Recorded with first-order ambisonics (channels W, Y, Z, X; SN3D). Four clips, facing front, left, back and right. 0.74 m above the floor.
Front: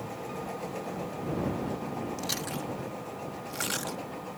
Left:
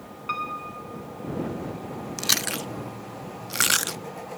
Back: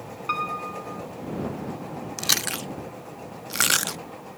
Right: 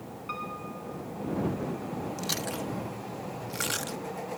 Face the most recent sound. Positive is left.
turn(degrees=140)